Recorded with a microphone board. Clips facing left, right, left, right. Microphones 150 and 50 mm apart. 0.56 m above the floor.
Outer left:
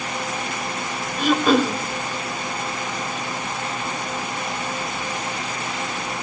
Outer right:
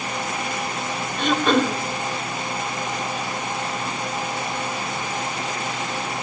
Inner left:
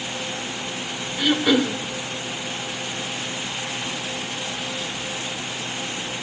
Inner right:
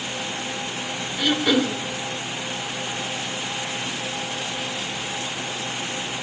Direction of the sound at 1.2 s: 5° left (ahead or behind).